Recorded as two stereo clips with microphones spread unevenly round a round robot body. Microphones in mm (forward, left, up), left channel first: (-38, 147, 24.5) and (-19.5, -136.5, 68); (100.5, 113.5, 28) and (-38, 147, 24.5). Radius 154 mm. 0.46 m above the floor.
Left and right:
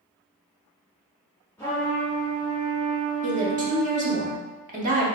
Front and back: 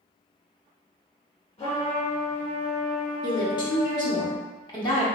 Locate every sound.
1.6 s a trumpet: 20° left, 1.4 m
3.2 s a woman speaking: 35° right, 0.8 m